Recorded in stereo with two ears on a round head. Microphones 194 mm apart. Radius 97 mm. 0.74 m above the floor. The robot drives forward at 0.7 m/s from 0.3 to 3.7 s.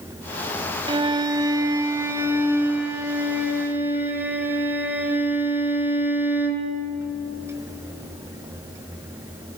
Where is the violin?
25° right (ahead or behind), 1.1 m; by 6.7 s 10° right (ahead or behind), 3 m.